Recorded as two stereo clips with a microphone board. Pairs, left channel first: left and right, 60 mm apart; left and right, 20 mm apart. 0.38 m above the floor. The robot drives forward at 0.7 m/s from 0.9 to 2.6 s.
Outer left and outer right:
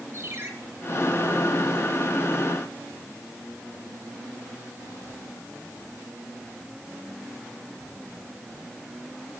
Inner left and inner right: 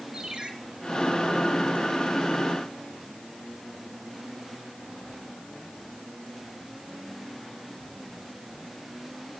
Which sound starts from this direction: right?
A ringtone, at 0.1 s.